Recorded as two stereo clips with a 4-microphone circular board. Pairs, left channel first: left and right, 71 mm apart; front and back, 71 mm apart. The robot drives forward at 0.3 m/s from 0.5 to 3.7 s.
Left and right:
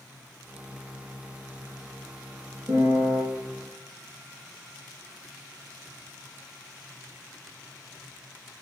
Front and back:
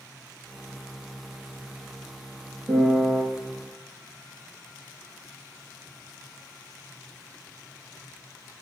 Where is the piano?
135° right, 0.6 m; by 3.2 s 145° right, 0.7 m.